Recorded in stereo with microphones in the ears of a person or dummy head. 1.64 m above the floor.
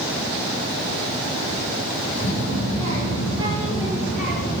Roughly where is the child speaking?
Right.